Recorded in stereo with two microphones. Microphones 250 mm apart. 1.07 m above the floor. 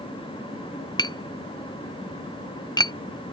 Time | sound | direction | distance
1.0 | tapping | 15° left (ahead or behind) | ?